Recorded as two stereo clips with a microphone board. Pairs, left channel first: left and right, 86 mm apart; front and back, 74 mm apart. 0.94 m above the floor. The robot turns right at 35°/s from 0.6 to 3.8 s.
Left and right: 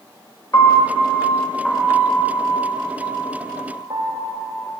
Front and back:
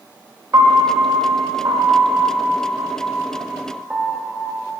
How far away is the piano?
About 1.0 m.